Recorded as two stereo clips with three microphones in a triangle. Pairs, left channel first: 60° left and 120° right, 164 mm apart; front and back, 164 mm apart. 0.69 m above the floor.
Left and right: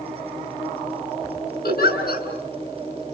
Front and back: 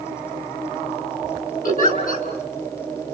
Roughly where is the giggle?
Ahead left.